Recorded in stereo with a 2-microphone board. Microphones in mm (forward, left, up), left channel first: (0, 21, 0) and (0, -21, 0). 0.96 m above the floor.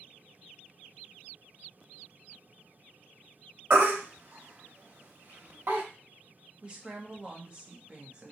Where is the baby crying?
60° right (ahead or behind), 0.9 m.